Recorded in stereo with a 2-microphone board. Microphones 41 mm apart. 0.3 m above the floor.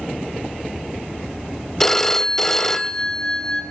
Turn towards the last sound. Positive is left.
turn(degrees=10)  # may be behind; listen again after turning